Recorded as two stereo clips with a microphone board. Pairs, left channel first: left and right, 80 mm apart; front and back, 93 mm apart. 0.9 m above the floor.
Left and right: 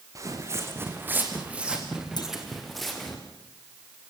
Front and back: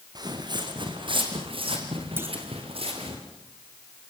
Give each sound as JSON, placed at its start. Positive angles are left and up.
{"t": 0.1, "sound": "footsteps", "azimuth_deg": -135, "distance_m": 4.0}
{"t": 2.2, "sound": "a clunk", "azimuth_deg": 115, "distance_m": 2.0}